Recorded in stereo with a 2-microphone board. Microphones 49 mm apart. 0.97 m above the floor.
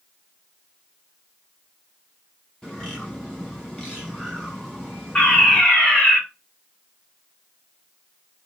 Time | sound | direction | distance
2.6 | a bird | 15° left (ahead or behind) | 6 m
5.2 | a fire alarm | 20° left (ahead or behind) | 4 m